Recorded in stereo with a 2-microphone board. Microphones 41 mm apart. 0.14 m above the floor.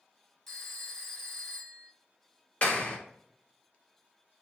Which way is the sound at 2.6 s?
35° left (ahead or behind).